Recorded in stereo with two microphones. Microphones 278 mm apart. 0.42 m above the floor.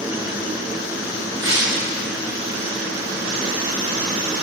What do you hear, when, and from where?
1.4 s breaking glass: 45° right (ahead or behind), 5 m